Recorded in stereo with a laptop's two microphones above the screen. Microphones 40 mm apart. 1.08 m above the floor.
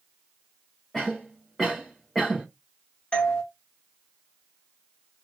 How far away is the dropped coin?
No dropped coin in this recording.